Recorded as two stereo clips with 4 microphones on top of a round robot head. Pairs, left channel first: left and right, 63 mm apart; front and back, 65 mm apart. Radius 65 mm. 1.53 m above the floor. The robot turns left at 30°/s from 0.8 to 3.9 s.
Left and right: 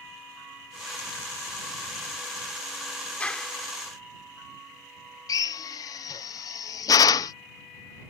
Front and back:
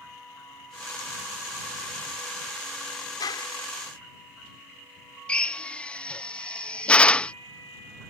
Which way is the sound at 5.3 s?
75° left.